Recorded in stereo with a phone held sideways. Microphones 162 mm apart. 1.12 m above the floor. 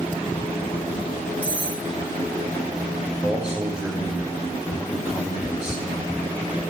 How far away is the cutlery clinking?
About 2.5 m.